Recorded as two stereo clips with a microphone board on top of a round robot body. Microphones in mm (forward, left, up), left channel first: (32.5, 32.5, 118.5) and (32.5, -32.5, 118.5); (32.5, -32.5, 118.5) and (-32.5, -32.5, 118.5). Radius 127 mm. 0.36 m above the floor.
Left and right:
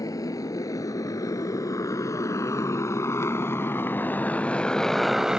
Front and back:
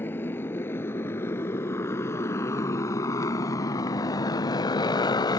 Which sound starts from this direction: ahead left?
A motorcycle, at 0.0 s.